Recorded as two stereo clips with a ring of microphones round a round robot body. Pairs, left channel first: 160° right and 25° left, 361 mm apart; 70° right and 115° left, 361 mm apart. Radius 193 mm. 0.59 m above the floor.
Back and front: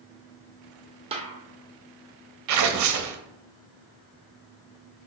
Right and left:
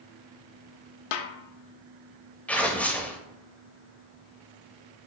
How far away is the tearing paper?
About 0.7 m.